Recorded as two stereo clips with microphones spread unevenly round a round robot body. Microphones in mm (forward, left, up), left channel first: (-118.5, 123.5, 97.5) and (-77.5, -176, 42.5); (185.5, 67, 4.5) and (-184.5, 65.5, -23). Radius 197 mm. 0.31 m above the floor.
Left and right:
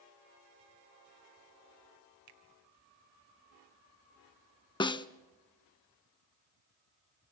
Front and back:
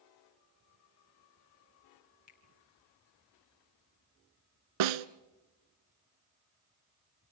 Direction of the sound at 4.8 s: 175° left.